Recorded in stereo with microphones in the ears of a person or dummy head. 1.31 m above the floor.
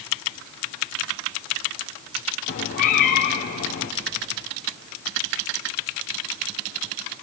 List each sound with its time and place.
2.5 s a cat meowing: 50° left (ahead or behind), 1.4 m